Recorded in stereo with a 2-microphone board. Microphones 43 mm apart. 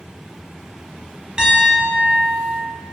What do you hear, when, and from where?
1.4 s a piano: 20° right (ahead or behind), 0.5 m